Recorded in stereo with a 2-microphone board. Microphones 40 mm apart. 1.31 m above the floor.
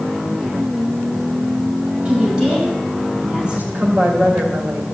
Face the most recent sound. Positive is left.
turn(degrees=-45)  # may be behind; listen again after turning